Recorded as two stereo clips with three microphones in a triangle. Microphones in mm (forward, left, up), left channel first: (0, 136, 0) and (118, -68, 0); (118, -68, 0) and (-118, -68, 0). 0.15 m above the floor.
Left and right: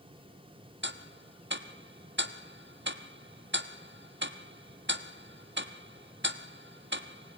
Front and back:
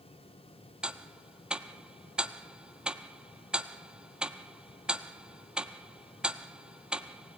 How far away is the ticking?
About 1.1 m.